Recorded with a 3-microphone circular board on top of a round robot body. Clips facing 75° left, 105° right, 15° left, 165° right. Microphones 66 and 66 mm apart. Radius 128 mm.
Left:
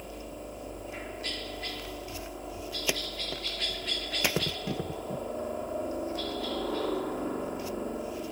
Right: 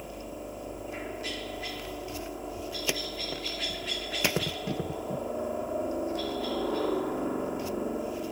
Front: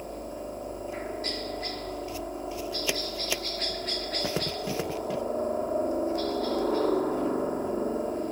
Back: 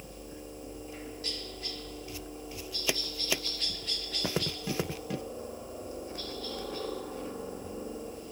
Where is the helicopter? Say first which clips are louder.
Right 2 dB, front 9 dB; 20° right.